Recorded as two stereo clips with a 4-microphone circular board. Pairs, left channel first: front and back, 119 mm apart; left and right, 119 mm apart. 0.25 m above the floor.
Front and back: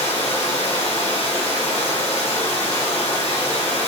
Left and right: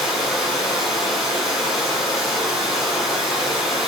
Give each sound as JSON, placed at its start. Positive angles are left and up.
{"t": 0.0, "sound": "running water", "azimuth_deg": 0, "distance_m": 1.7}